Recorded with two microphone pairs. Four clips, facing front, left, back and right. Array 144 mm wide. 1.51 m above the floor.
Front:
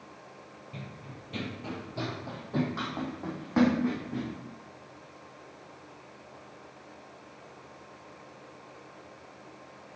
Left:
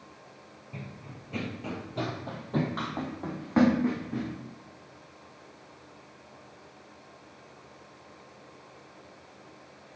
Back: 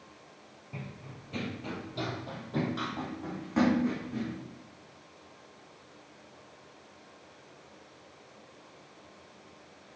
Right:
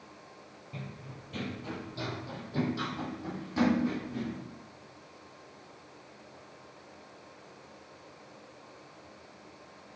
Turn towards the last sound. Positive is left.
turn(degrees=65)